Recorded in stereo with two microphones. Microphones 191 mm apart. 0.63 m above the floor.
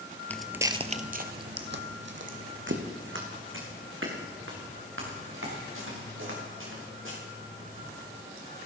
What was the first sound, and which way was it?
Footsteps, 10° left (ahead or behind).